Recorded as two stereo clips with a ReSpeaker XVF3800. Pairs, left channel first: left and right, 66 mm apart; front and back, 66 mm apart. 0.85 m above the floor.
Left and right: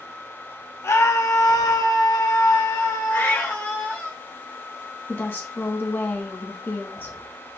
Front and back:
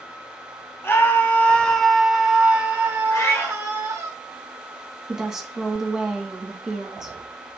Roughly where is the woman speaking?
Left.